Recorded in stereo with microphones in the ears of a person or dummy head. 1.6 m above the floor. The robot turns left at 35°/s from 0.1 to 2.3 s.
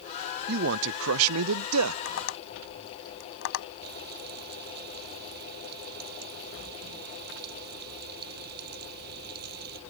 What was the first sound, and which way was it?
A man speaking, 50° right.